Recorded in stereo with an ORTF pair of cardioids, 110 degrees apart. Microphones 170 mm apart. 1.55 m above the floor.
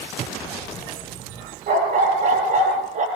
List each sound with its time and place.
1.7 s a dog barking: 55° right, 10 m; by 3.1 s 45° right, 10.5 m